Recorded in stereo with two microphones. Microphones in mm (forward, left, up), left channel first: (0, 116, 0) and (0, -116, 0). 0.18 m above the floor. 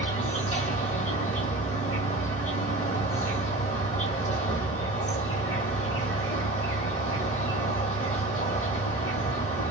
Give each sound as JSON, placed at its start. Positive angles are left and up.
{"t": 0.0, "sound": "an insect", "side_deg": 35, "distance_m": 1.1}